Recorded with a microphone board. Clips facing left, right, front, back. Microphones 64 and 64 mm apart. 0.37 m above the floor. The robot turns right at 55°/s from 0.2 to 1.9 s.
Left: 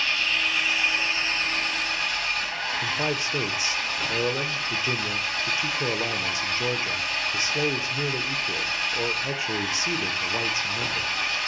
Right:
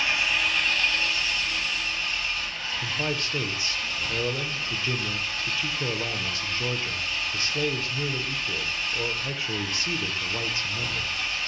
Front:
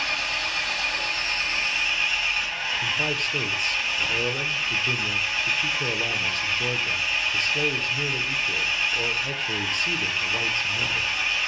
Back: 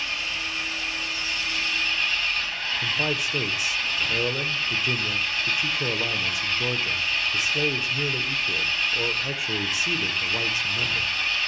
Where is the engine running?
20° right, 1.9 m; by 11.5 s 75° left, 1.9 m.